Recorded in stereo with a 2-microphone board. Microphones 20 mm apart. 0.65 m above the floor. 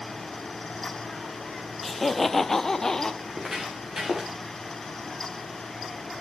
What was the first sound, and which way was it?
Laughter, 5° left (ahead or behind).